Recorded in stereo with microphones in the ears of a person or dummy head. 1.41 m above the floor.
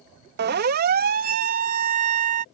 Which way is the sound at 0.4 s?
50° right (ahead or behind).